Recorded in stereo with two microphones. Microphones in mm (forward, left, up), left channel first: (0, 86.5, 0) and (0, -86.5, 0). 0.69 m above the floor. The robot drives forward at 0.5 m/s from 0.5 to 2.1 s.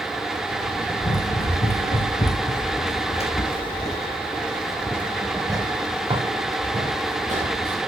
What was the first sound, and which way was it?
Running footsteps, 75° left (ahead or behind).